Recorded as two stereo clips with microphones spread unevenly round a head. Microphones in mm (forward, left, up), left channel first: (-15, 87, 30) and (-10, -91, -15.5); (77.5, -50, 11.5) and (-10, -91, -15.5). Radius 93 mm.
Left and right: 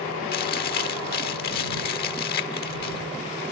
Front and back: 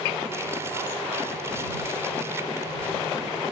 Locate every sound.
0.3 s chewing: 125° left